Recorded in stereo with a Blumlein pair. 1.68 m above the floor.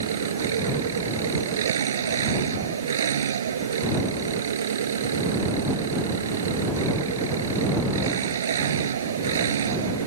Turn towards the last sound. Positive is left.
turn(degrees=-65)